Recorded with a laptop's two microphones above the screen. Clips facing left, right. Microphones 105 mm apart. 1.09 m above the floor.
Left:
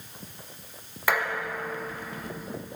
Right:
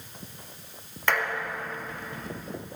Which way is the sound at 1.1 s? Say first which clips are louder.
Left 1 dB; 5° left (ahead or behind).